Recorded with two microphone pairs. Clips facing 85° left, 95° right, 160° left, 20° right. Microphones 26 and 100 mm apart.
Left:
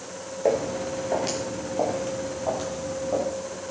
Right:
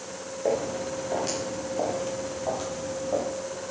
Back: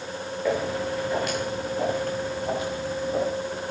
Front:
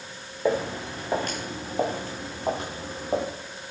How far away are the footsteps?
About 4 m.